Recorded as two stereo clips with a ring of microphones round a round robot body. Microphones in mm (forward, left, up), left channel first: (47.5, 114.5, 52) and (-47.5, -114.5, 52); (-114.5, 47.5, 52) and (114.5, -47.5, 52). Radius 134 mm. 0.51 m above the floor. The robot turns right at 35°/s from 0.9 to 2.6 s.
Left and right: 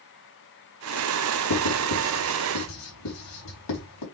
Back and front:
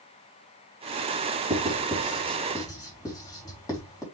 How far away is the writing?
About 3.5 m.